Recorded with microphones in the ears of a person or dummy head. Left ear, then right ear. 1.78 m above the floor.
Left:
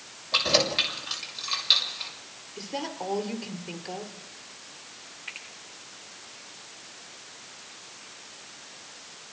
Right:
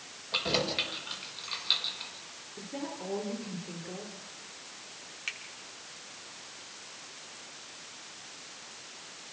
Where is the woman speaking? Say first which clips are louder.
Left 6 dB; 55° left (ahead or behind), 5 m.